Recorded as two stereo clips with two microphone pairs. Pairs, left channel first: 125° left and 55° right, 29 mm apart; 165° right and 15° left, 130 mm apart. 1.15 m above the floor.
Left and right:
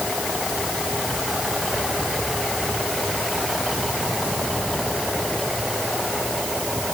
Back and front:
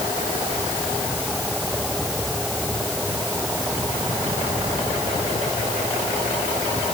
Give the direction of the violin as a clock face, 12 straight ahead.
No violin in this recording.